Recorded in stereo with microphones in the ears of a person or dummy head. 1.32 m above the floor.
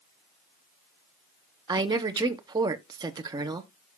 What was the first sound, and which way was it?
A woman speaking, 25° right (ahead or behind).